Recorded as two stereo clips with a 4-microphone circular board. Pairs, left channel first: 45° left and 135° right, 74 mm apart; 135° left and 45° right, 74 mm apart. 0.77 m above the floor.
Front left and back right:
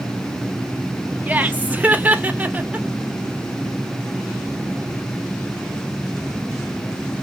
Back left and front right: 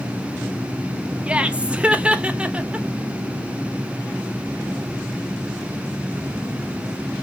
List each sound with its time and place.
1.3 s laughter: 100° right, 0.7 m